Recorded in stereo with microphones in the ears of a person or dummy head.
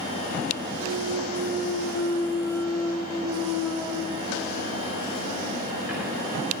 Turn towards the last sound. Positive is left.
turn(degrees=-5)  # may be behind; listen again after turning